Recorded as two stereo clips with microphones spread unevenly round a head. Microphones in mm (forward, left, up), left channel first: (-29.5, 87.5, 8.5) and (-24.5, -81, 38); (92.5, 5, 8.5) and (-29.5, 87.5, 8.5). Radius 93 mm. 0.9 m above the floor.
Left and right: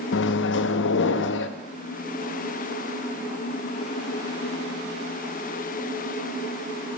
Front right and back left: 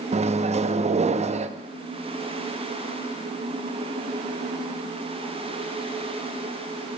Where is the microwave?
100° left, 0.6 m.